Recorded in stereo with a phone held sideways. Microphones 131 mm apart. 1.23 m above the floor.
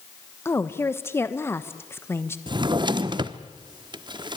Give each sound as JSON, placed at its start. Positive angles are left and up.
{"t": 0.5, "sound": "a woman speaking", "side_deg": 20, "distance_m": 1.3}
{"t": 2.5, "sound": "a drawer", "side_deg": -35, "distance_m": 0.9}